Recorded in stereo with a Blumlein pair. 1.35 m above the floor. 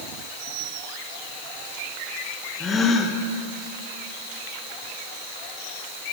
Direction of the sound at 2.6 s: 15° left.